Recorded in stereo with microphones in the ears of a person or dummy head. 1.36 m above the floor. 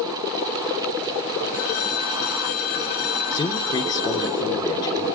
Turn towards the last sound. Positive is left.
turn(degrees=20)  # may be behind; listen again after turning